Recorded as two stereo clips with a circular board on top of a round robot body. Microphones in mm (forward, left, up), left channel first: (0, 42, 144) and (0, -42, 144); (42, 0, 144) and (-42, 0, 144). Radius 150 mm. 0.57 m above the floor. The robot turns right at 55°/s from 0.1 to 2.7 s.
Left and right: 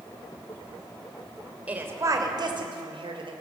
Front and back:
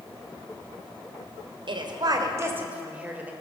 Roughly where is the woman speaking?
Behind.